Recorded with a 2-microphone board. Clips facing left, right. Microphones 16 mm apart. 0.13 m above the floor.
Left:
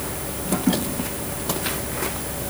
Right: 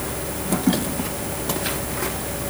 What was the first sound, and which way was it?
Only background noise.